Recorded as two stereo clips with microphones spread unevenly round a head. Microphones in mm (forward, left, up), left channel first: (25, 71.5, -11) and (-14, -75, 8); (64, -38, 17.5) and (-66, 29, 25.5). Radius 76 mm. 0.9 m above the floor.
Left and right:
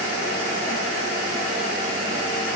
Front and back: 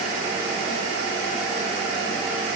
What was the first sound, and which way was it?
Only background noise.